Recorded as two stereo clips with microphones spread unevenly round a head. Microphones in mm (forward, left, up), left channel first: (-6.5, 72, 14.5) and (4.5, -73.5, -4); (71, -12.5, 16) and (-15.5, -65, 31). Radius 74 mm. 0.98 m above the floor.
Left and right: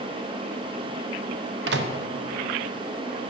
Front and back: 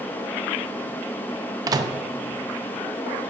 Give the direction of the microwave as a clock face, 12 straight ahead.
3 o'clock.